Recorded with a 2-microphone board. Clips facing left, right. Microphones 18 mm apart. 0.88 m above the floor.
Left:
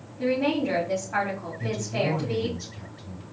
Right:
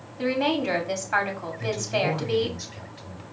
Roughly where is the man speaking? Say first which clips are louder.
Right 3 dB; right.